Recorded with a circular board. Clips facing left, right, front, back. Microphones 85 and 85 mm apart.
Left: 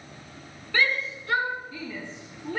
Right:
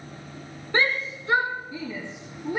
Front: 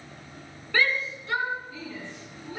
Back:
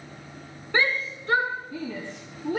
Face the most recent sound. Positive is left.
turn(degrees=-165)